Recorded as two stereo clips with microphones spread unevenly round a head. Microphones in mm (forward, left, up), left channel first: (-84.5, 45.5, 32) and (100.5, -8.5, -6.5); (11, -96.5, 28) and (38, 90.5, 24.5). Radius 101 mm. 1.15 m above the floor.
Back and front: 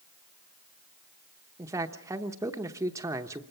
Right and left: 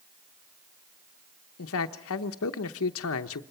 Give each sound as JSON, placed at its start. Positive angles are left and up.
{"t": 1.6, "sound": "a man speaking", "azimuth_deg": -95, "distance_m": 0.8}